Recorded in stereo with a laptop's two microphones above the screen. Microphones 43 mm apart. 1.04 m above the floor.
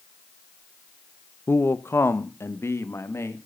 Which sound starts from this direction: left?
A man speaking, at 1.5 s.